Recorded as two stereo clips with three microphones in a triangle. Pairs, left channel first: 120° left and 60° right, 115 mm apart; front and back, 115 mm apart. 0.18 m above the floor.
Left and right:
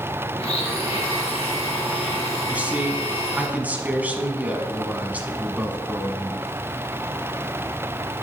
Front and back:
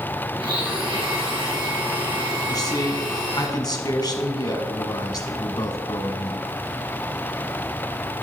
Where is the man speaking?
5° left, 1.3 m.